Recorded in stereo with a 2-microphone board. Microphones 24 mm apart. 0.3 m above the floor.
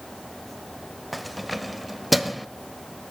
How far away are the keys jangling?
About 0.6 m.